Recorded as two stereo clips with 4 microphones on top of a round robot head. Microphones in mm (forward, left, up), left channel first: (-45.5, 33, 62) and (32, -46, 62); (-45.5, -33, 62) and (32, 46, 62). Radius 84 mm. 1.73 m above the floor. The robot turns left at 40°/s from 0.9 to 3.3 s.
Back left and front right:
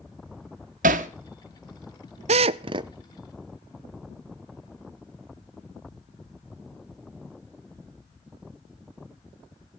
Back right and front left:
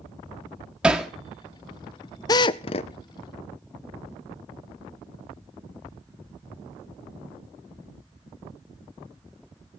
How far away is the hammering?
About 1.2 m.